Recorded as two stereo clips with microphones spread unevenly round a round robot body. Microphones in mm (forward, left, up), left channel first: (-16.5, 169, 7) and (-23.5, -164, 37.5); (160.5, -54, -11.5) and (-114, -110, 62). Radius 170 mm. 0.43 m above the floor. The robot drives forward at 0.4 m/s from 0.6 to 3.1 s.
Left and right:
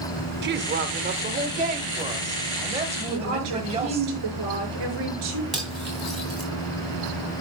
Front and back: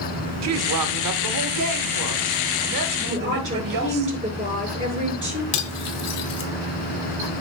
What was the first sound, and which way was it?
A woman speaking, 145° right.